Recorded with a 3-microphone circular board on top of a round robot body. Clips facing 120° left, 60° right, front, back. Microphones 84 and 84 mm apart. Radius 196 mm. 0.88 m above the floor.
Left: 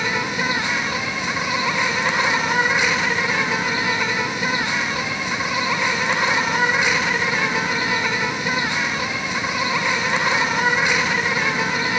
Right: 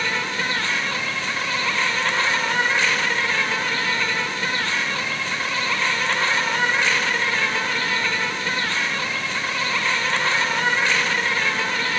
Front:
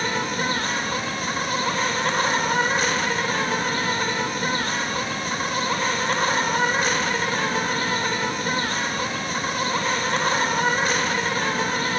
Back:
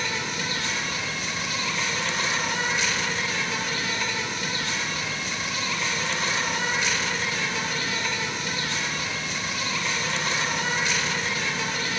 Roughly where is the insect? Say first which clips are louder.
Left 2 dB, front 6 dB; ahead left.